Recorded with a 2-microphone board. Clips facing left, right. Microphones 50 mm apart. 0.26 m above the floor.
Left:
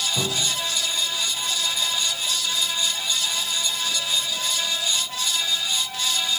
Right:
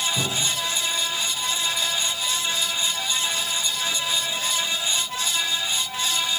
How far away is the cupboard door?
About 9 m.